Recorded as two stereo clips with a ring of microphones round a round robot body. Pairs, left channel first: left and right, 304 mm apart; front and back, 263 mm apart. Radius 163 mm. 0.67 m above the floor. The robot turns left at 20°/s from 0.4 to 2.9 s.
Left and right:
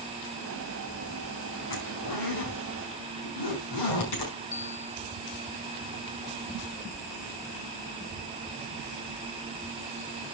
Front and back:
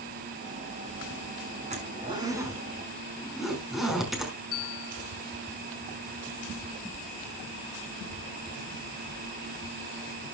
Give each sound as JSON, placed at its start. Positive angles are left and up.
{"t": 1.7, "sound": "a zipper", "azimuth_deg": 115, "distance_m": 5.5}
{"t": 4.5, "sound": "a bell", "azimuth_deg": 30, "distance_m": 1.8}